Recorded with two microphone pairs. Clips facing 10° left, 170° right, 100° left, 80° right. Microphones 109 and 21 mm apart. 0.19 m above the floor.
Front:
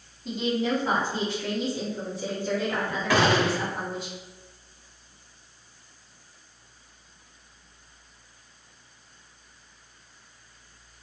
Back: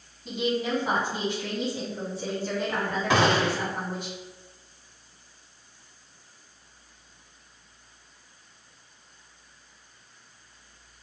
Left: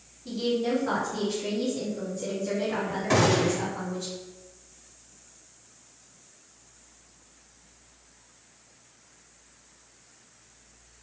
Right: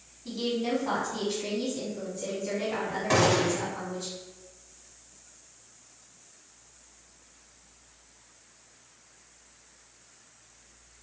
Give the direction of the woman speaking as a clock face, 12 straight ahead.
3 o'clock.